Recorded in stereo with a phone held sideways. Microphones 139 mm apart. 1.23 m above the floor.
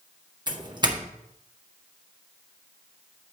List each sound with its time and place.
0.5 s a doorbell: 30° right (ahead or behind), 1.5 m